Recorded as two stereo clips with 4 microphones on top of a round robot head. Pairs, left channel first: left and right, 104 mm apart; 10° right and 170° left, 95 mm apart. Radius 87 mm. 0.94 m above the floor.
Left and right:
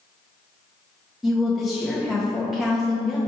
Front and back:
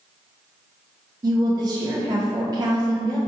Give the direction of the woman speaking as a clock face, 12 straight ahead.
6 o'clock.